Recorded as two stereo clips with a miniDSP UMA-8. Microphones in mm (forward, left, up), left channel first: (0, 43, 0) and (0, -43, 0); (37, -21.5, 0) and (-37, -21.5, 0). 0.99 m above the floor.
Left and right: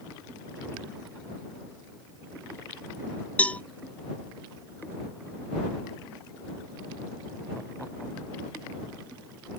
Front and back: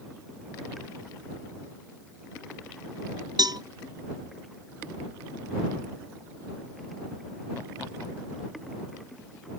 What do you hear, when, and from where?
3.4 s a cowbell: 165° left